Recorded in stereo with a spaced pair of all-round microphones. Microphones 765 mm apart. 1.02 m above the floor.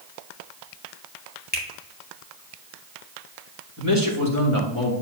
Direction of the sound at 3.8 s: 20° right (ahead or behind).